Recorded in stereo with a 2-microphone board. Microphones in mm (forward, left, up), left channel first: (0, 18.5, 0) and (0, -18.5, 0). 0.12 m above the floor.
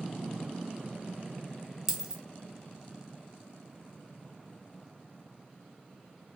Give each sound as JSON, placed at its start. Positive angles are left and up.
{"t": 1.9, "sound": "a dropped coin", "side_deg": -15, "distance_m": 0.9}